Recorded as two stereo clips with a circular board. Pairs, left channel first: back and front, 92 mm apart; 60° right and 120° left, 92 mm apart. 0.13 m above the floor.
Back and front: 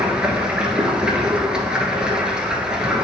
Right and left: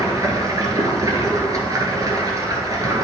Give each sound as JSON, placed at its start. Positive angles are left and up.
{"t": 0.0, "sound": "running water", "azimuth_deg": 80, "distance_m": 1.3}